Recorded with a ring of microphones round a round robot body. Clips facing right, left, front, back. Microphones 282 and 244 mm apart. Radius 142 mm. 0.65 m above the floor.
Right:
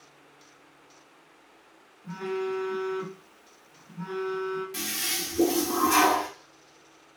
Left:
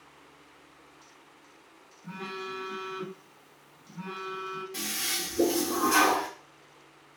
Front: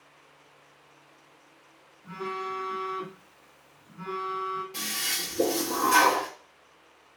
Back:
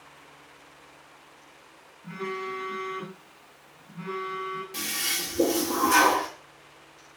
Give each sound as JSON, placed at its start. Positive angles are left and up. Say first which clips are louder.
{"t": 2.0, "sound": "a phone buzzing", "louder": "right 10 dB, back 2 dB", "azimuth_deg": 150, "distance_m": 1.8}
{"t": 4.7, "sound": "a toilet flushing", "louder": "right 2 dB, back 3 dB", "azimuth_deg": -150, "distance_m": 0.8}